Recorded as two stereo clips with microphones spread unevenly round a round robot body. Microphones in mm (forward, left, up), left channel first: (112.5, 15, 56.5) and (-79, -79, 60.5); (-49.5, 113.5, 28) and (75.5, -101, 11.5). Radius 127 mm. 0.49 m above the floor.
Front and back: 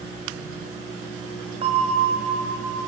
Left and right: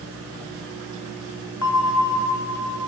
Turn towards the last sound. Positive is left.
turn(degrees=140)